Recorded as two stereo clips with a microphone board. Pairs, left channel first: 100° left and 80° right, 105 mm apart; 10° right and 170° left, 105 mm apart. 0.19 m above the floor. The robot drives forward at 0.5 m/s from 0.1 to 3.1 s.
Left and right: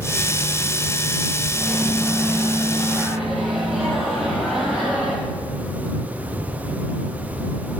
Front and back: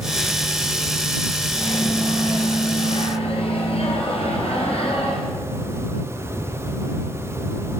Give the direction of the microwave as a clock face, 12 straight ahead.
12 o'clock.